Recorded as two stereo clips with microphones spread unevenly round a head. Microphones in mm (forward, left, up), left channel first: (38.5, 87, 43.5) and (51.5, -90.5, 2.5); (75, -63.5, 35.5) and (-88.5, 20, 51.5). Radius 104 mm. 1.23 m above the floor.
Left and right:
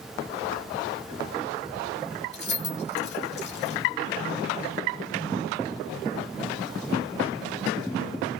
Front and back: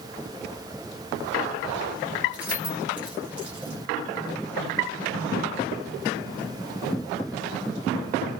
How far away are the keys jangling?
About 2.5 m.